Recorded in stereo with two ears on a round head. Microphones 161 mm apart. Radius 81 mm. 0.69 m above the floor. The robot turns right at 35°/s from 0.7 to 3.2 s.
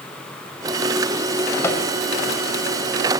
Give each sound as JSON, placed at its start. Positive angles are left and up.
{"t": 1.6, "sound": "a microwave", "side_deg": 15, "distance_m": 2.5}